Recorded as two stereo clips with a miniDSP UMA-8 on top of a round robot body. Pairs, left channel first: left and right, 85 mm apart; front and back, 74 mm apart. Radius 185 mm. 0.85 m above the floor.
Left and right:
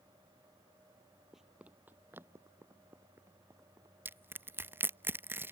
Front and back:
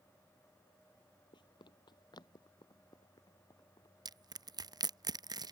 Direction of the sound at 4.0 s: 155° right.